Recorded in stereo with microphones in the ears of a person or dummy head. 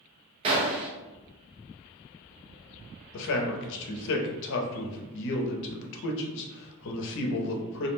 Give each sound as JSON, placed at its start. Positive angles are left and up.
{"t": 0.4, "sound": "a gunshot", "side_deg": -35, "distance_m": 0.6}
{"t": 3.1, "sound": "a man speaking", "side_deg": 65, "distance_m": 0.6}